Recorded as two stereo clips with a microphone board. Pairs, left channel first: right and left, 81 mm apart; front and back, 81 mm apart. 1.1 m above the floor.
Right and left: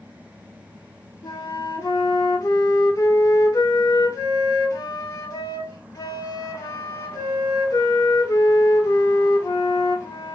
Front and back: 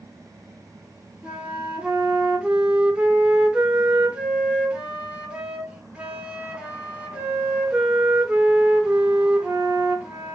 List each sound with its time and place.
1.2 s a flute: 110° right, 0.9 m